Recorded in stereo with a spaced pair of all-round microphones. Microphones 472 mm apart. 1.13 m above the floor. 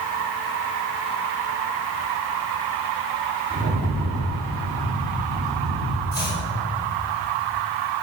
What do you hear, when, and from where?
3.5 s a rattle: 25° right (ahead or behind), 3 m
6.1 s chopping: 40° left (ahead or behind), 5.5 m